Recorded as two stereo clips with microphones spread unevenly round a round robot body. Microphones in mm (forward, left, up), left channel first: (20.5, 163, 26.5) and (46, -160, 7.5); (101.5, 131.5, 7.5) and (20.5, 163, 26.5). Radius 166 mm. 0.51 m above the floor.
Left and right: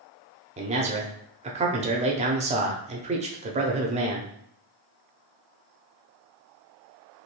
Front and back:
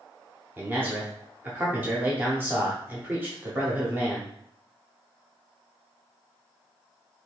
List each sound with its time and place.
0.6 s a man speaking: 125° right, 0.7 m